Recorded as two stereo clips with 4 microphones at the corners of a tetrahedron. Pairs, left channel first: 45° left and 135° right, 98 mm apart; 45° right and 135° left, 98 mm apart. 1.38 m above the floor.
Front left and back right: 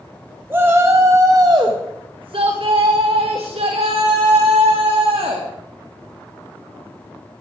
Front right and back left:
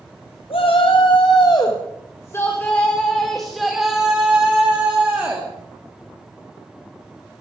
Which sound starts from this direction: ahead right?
A shout, at 0.5 s.